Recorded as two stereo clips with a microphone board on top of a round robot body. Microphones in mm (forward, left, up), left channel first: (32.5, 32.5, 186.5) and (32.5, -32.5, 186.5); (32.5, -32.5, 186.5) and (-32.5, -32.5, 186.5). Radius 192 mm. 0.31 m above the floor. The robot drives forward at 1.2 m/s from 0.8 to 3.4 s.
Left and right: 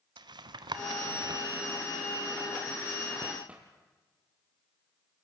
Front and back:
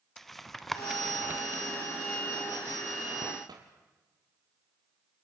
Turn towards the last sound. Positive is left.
turn(degrees=-165)